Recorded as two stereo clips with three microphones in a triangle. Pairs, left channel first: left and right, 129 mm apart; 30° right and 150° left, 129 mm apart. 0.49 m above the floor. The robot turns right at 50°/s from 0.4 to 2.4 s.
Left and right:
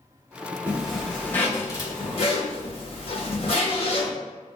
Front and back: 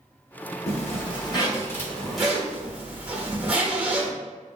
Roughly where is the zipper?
Ahead.